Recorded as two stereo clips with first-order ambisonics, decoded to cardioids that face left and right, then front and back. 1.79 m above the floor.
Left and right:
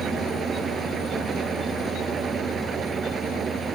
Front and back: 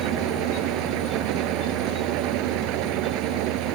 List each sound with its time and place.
0.0 s an engine running: 155° right